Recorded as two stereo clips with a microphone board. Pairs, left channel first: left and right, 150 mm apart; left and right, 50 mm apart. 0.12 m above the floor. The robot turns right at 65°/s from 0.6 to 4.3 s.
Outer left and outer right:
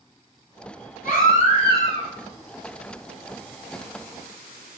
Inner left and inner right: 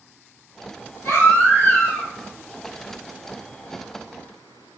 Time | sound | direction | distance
1.0 | a baby crying | 95° left | 1.8 m